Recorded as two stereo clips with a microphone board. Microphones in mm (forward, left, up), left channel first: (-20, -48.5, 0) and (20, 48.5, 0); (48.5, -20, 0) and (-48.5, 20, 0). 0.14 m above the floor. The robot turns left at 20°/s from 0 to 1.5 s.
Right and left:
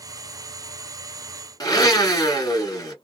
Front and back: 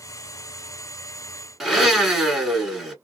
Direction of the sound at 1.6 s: 120° right.